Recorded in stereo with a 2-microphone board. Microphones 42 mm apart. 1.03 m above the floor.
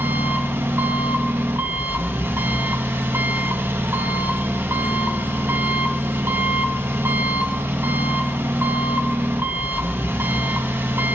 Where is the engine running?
80° right, 0.9 m.